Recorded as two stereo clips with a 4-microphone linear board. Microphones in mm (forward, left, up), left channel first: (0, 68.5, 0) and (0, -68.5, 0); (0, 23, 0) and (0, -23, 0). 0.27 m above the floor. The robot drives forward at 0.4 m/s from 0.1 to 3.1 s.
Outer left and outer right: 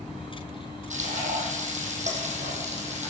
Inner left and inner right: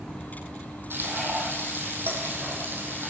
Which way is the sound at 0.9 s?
60° right (ahead or behind).